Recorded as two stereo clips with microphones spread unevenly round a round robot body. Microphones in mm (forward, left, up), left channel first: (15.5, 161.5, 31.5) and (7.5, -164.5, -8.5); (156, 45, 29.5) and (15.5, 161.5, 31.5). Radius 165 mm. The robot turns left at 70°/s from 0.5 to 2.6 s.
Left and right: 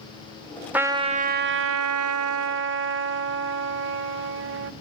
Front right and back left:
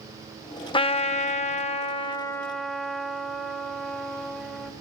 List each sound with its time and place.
0.7 s a trumpet: straight ahead, 0.6 m; by 4.7 s 130° right, 0.6 m